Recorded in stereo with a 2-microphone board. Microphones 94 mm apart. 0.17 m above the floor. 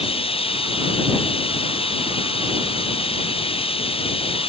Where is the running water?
90° left.